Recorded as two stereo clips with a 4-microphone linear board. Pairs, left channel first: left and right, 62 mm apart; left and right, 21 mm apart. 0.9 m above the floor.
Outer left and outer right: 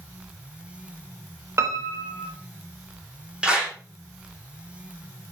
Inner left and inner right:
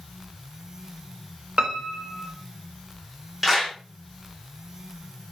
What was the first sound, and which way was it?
A piano, 45° right (ahead or behind).